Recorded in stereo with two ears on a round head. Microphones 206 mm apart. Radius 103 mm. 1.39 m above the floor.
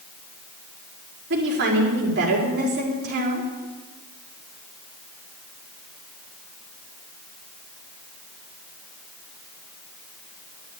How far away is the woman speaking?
About 4.5 m.